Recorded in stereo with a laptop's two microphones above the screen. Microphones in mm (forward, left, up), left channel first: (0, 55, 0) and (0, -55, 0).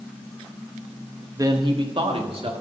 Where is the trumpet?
I don't hear a trumpet.